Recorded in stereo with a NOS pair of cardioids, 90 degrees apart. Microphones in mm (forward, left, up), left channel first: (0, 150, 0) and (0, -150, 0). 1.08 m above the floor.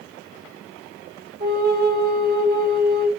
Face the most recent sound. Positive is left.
turn(degrees=-35)